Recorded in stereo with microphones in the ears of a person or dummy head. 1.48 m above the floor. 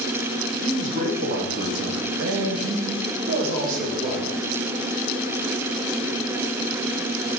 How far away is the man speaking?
About 1.4 m.